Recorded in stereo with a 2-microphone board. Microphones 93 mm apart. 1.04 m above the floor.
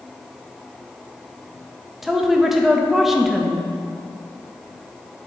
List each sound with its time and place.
2.0 s a woman speaking: 5° right (ahead or behind), 0.8 m